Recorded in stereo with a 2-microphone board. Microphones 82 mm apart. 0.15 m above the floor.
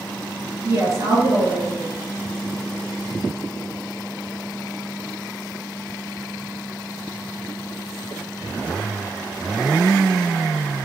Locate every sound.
0.6 s a woman speaking: 40° right (ahead or behind), 1.9 m